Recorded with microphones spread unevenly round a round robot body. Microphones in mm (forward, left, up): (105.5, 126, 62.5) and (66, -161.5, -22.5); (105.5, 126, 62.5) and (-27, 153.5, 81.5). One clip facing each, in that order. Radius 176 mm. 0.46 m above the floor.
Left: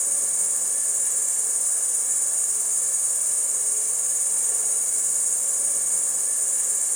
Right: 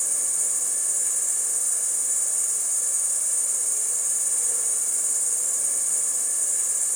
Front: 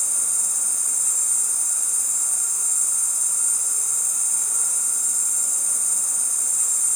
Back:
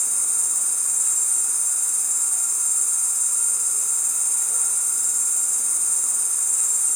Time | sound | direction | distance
0.0 | an insect | straight behind | 1.5 m